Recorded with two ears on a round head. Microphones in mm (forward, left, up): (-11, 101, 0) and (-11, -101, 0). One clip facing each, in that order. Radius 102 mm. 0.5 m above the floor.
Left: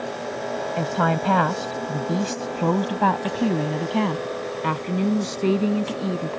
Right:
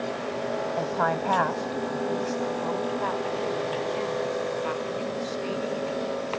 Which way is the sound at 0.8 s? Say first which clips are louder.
Left 6 dB; 40° left (ahead or behind).